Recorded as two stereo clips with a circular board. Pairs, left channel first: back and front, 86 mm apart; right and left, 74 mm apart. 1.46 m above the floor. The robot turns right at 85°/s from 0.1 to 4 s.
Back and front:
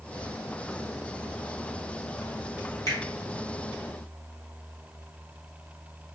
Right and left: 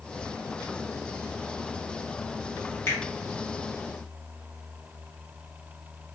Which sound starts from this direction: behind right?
A finger snap, at 2.9 s.